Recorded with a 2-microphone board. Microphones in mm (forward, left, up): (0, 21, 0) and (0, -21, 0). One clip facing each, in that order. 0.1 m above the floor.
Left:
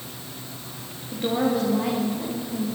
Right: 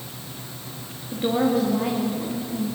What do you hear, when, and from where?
1.1 s a woman speaking: 10° right (ahead or behind), 6 m; by 2.7 s centre (ahead or behind), 6 m